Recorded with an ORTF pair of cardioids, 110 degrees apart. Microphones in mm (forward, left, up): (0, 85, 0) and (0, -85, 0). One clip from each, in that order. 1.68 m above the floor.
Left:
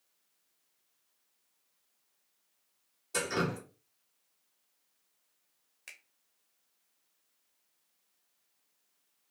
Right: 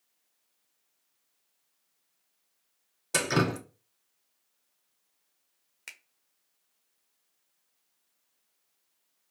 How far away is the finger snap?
About 0.7 m.